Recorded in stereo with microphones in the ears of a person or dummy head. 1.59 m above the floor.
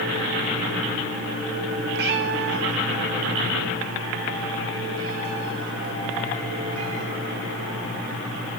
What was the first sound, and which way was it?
A cat meowing, 55° right (ahead or behind).